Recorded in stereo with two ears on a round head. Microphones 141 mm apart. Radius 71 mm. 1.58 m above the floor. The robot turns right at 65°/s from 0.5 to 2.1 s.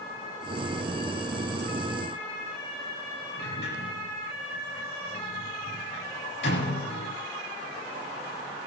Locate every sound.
3.4 s a sliding door: 75° left (ahead or behind), 8.5 m